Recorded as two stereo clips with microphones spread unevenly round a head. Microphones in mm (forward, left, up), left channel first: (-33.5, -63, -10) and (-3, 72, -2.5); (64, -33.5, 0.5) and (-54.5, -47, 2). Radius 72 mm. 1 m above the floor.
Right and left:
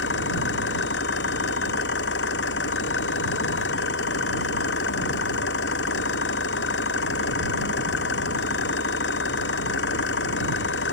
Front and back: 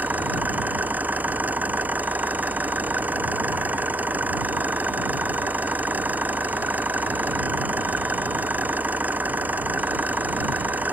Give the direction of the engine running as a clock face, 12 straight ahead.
3 o'clock.